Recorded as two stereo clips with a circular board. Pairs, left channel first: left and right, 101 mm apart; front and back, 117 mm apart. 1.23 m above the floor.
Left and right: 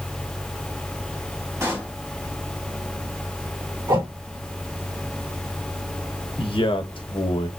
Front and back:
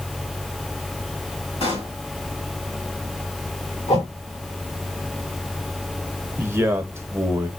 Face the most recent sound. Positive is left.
turn(degrees=110)